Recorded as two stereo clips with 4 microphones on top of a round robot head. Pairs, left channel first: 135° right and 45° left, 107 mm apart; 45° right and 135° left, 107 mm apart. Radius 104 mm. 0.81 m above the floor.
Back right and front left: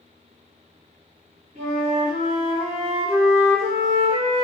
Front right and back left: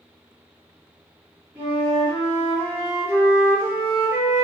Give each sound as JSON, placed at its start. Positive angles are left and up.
{"t": 1.6, "sound": "a flute", "azimuth_deg": 65, "distance_m": 1.2}